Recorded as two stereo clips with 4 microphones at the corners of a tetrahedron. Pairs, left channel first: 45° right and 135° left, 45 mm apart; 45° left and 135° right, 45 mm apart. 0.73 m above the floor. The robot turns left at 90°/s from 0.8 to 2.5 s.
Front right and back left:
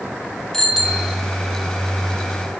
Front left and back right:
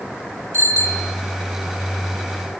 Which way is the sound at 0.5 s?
130° right.